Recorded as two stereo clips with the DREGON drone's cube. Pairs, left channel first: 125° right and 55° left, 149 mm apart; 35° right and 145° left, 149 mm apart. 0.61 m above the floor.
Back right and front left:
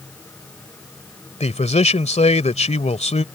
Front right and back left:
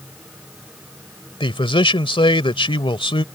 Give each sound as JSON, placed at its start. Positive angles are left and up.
{"t": 1.4, "sound": "a man speaking", "azimuth_deg": -85}